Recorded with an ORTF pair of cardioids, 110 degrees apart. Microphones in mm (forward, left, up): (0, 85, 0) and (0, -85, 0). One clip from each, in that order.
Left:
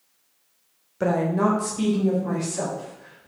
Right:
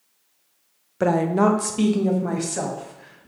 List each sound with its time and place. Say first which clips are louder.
1.0 s a woman speaking: right 3 dB; 20° right, 0.7 m; by 3.3 s 60° right, 2.5 m